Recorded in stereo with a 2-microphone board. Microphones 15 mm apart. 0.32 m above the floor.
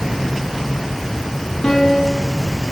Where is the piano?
60° left (ahead or behind), 4 m.